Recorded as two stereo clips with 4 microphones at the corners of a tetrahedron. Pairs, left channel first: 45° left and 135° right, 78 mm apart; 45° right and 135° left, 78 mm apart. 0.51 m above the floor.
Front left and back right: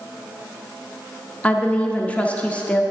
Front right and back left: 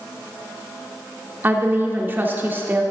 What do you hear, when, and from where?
1.4 s a woman speaking: 100° left, 0.7 m